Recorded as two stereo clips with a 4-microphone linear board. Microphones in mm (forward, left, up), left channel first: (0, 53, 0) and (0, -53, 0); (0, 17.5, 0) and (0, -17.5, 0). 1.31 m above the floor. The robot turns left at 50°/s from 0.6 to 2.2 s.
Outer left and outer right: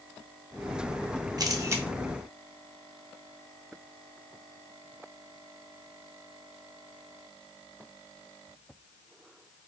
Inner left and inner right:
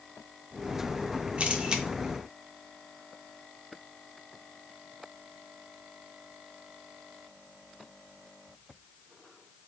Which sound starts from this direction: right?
A camera shutter, at 1.4 s.